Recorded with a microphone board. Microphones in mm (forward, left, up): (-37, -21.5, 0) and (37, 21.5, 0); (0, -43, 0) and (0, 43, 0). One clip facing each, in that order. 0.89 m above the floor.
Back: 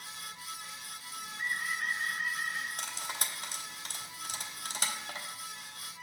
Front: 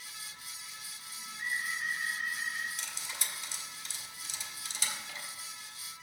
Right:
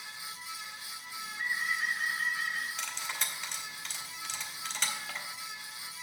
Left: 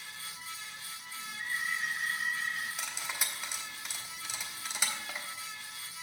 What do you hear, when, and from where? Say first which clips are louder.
1.1 s a bird: back 1 dB, right 3 dB; 125° right, 1.5 m
2.8 s cutlery clinking: back 4 dB, right 1 dB; 170° left, 1.0 m